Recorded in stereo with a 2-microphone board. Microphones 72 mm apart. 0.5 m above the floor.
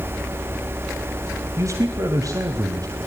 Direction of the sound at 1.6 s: 45° right (ahead or behind).